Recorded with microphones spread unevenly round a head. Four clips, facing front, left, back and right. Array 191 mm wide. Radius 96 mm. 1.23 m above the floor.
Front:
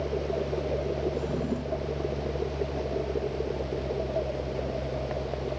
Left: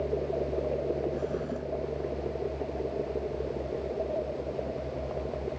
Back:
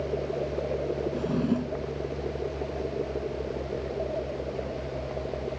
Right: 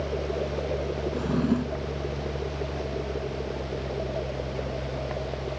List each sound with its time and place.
1.1 s a drawer: 120° right